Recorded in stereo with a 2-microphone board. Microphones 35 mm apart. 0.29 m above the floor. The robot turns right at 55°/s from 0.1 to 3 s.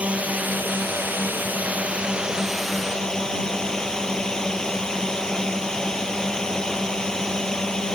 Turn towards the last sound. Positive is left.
turn(degrees=20)